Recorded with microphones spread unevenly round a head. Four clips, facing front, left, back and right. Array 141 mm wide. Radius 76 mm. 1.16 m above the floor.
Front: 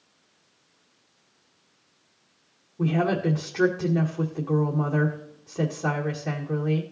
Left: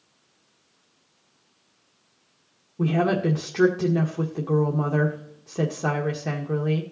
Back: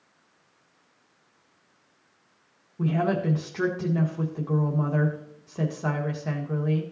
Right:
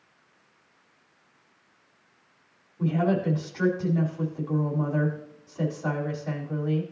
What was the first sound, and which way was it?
A woman speaking, 85° left.